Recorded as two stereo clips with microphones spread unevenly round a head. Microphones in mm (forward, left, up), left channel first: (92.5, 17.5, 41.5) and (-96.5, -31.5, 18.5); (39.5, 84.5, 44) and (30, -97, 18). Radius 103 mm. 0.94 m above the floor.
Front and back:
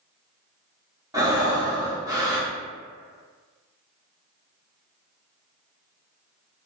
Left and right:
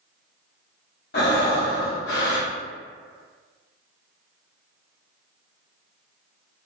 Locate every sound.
1.1 s breathing: 120° left, 0.7 m